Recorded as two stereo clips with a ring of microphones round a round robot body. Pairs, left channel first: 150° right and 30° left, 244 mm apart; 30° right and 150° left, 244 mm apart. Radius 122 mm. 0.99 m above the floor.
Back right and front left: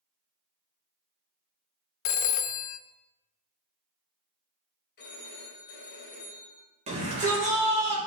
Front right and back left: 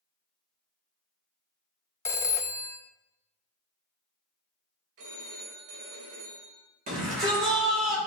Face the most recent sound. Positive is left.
turn(degrees=95)